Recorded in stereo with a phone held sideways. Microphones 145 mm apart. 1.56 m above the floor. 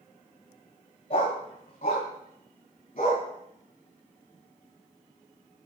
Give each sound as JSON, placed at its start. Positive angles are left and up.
{"t": 1.1, "sound": "a dog barking", "side_deg": 45, "distance_m": 3.0}